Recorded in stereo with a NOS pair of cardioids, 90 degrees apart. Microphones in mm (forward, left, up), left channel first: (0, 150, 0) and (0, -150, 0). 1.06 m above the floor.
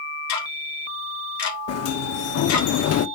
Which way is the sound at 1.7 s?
60° left.